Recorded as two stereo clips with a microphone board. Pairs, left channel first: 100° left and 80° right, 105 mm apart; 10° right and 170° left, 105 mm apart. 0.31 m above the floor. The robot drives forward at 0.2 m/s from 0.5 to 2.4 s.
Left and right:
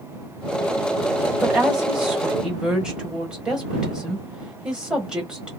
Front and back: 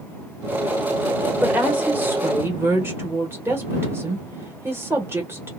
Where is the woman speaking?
135° right, 1.0 m; by 5.5 s 150° right, 1.1 m.